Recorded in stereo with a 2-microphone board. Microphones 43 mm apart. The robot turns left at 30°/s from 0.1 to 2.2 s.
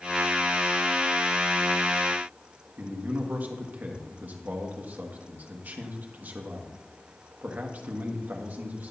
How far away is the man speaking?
About 1.3 m.